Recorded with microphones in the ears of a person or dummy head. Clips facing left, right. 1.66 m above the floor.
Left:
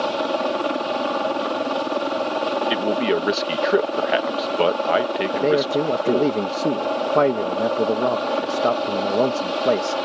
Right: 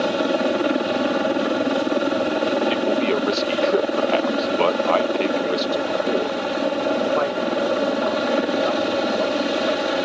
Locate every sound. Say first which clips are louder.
0.0 s a helicopter: right 3 dB; 30° right (ahead or behind)
2.7 s a man speaking: right 1 dB; 10° left (ahead or behind)
5.3 s a man speaking: left 3 dB; 50° left (ahead or behind)